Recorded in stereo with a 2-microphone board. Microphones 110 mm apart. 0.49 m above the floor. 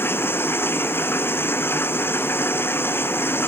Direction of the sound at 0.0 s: 20° left (ahead or behind).